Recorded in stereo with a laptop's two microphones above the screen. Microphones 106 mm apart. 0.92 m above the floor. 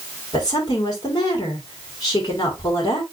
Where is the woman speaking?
40° left (ahead or behind), 3.5 m.